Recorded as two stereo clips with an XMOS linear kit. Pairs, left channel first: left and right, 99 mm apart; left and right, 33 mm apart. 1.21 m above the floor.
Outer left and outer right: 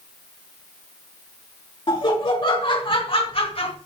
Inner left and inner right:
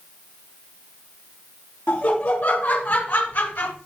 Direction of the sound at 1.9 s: 60° left (ahead or behind).